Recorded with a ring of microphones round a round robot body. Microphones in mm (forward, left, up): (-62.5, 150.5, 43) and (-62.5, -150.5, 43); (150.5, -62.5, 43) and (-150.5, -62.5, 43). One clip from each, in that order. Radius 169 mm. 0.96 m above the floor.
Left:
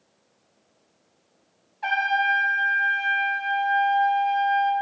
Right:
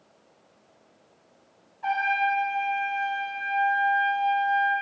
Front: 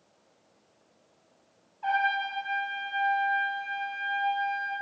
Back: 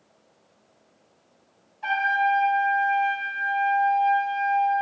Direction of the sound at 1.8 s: 115° left.